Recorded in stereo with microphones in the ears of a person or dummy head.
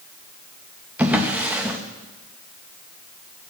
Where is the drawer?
5° right (ahead or behind), 0.6 m.